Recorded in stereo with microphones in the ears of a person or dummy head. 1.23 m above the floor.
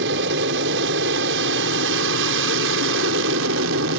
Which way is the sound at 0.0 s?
55° right (ahead or behind).